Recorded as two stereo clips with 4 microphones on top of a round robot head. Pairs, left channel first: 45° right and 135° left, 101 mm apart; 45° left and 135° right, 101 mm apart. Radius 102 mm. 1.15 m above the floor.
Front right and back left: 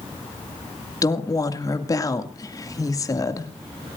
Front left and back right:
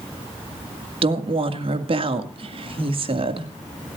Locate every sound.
1.0 s a woman speaking: 100° right, 2 m